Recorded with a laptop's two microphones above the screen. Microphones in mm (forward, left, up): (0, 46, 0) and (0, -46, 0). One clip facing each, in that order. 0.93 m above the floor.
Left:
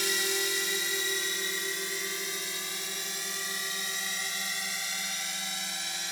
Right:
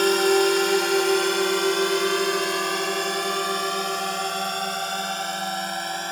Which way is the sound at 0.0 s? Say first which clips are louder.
Right 15 dB; 60° right (ahead or behind).